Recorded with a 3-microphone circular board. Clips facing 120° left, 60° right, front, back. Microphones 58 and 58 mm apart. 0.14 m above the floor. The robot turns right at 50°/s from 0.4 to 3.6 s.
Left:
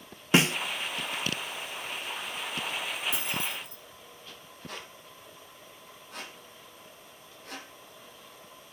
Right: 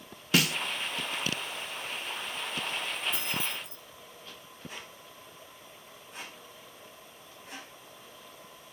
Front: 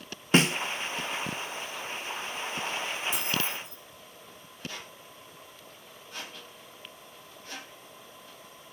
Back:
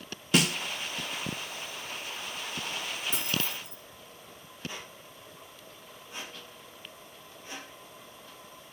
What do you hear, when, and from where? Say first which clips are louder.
0.3 s a snare drum: left 3 dB, front 3 dB; 55° left, 0.6 m; by 0.6 s 65° left, 0.6 m
3.1 s keys jangling: left 1 dB, front 2 dB; 135° left, 6.5 m; by 3.8 s 155° left, 6.5 m
4.7 s a squeak: left 3 dB, even; 110° left, 3.5 m